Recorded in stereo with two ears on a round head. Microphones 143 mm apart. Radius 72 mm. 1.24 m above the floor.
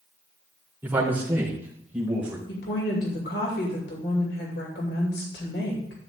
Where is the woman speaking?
75° left (ahead or behind), 2.5 m.